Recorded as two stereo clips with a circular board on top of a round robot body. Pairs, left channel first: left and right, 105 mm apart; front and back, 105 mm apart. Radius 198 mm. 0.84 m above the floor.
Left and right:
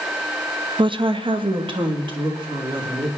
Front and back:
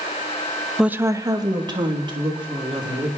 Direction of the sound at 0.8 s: 95° right.